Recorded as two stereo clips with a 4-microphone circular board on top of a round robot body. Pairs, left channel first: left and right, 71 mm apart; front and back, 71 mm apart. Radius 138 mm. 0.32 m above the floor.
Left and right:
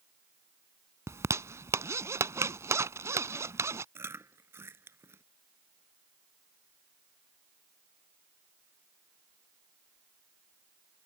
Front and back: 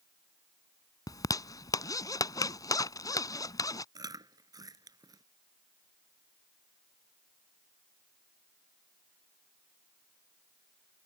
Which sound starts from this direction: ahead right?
A zipper, at 1.1 s.